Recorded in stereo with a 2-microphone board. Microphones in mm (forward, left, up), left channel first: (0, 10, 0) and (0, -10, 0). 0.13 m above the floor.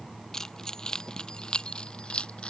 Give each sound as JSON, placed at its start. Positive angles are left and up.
{"t": 0.3, "sound": "keys jangling", "side_deg": 20}